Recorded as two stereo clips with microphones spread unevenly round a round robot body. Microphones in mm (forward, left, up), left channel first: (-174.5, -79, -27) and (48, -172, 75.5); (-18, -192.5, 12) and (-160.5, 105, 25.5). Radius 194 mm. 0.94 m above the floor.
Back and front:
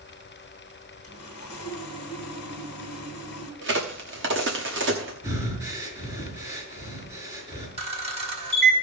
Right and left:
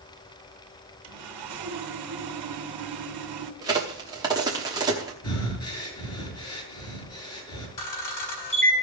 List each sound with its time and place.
1.0 s sawing: 105° left, 2 m
3.6 s a crack: 35° left, 0.9 m
5.2 s breathing: 95° right, 4.5 m
7.8 s a camera shutter: 90° right, 4.5 m